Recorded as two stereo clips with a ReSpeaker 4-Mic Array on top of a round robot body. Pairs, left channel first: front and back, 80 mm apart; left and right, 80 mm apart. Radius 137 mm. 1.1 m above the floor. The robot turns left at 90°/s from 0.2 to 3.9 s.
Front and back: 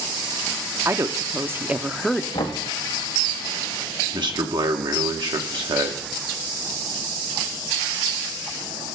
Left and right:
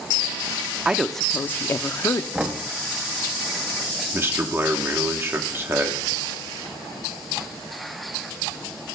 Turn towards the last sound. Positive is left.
turn(degrees=-150)